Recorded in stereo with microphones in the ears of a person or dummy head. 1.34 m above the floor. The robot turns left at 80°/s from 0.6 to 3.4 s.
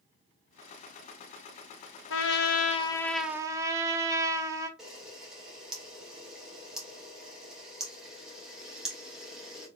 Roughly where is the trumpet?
Left.